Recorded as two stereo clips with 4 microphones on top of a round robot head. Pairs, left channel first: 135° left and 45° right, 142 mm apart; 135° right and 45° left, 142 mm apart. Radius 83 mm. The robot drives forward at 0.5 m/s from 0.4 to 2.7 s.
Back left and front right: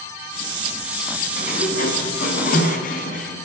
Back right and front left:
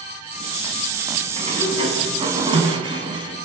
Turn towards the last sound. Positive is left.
turn(degrees=105)